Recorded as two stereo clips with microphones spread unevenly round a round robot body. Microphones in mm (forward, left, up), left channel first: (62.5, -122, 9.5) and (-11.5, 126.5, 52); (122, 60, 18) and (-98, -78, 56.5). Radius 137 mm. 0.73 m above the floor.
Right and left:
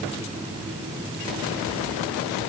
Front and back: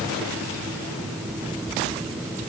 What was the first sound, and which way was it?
Only background noise.